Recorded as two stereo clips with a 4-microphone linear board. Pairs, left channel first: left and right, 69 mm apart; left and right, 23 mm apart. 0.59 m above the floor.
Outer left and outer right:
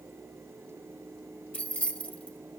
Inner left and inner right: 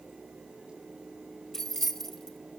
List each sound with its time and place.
1.5 s keys jangling: 20° left (ahead or behind), 1.7 m